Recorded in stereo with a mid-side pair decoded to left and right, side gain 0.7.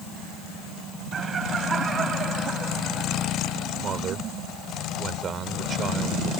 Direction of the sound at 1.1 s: 30° right.